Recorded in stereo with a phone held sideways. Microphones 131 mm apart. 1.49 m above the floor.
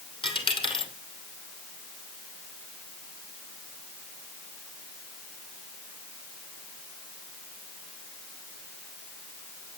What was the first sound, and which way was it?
A dropped coin, 40° left (ahead or behind).